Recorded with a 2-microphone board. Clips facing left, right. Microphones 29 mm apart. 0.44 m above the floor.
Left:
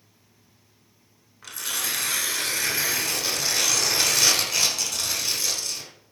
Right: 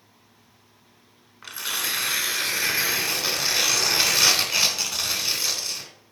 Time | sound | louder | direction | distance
1.4 | tearing paper | right 2 dB | 20° right (ahead or behind) | 0.9 m